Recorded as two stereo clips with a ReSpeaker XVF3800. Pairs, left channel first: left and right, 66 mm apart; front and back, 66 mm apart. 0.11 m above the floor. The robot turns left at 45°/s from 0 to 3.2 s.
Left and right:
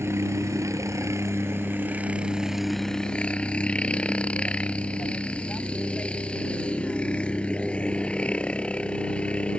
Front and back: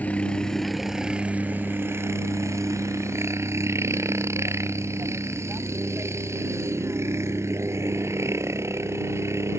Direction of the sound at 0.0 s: 60° right.